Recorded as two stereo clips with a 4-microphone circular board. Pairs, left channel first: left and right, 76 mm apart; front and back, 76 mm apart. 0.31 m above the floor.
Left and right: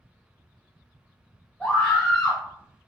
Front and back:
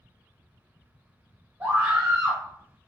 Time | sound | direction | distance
1.6 | a scream | 150° left | 1.2 m